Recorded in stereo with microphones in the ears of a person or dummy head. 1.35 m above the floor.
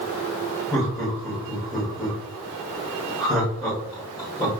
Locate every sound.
0.7 s laughter: centre (ahead or behind), 2 m